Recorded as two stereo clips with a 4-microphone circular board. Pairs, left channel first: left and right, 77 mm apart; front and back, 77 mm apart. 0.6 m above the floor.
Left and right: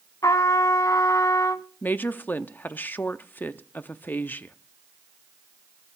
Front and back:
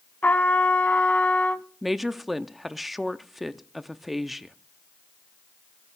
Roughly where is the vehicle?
No vehicle in this recording.